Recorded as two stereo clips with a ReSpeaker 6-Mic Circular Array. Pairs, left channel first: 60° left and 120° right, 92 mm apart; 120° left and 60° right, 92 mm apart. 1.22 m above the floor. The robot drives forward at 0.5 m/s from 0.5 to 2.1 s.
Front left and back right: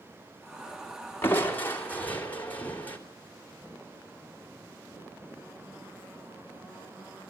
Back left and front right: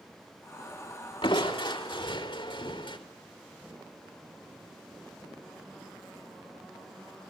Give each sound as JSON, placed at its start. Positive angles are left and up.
{"t": 1.2, "sound": "crushing", "azimuth_deg": 125, "distance_m": 3.0}